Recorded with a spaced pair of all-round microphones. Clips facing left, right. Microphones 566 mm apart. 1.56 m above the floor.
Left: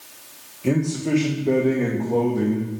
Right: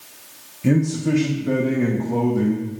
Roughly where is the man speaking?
Right.